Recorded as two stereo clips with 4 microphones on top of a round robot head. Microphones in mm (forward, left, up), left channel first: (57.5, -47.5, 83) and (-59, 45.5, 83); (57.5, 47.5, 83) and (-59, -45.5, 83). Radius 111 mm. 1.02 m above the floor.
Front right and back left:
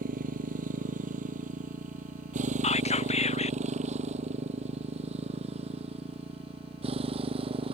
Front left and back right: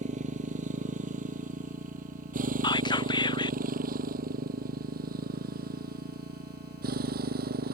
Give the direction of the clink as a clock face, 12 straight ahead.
I don't hear a clink.